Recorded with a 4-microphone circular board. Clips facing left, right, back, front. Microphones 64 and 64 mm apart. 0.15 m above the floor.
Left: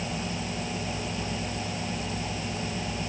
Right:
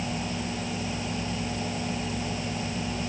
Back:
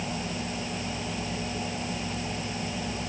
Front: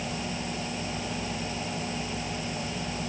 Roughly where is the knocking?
No knocking in this recording.